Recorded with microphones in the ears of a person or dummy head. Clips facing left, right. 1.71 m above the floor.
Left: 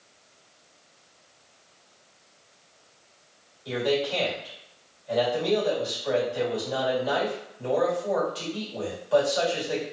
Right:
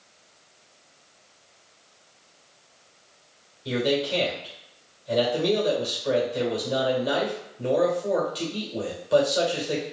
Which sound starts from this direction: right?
A man speaking, at 3.6 s.